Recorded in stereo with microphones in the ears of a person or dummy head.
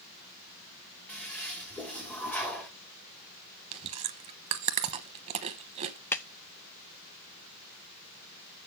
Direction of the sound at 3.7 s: 35° right (ahead or behind).